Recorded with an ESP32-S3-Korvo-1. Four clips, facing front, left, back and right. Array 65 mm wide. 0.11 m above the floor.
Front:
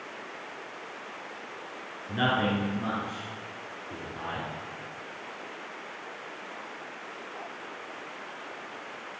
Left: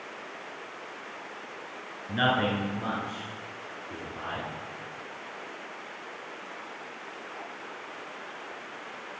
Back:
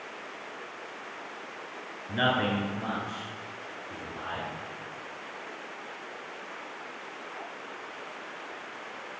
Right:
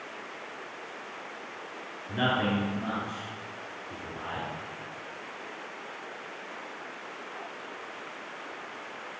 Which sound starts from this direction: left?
A man speaking, at 2.1 s.